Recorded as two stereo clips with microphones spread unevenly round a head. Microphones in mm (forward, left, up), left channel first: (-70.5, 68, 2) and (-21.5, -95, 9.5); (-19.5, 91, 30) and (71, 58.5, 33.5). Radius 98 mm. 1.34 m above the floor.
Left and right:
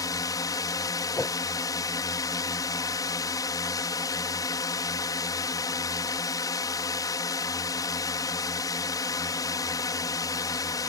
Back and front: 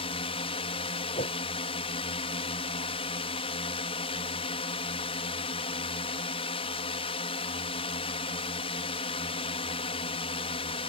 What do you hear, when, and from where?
0.0 s a drone: 175° left
1.1 s a whoosh: 175° right